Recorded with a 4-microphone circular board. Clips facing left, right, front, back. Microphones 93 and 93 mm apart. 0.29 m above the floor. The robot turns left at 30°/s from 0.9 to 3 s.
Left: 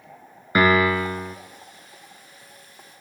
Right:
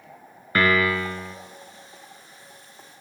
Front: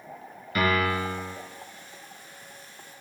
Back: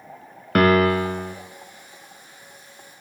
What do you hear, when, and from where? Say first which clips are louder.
0.6 s a piano: left 3 dB, back 8 dB; 165° left, 0.8 m; by 1.4 s 150° left, 0.8 m